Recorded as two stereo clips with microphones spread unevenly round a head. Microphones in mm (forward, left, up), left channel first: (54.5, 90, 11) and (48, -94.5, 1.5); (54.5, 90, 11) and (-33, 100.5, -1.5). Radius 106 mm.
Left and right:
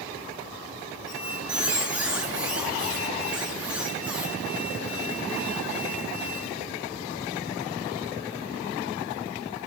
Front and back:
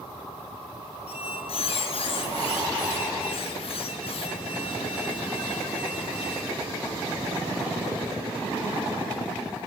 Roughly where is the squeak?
Ahead.